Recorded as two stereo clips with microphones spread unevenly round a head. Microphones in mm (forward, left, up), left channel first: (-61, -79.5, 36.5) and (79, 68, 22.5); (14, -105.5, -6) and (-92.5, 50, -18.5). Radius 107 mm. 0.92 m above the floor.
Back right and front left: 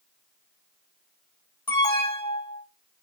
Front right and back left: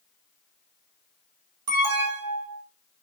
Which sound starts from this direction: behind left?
An alarm, at 1.7 s.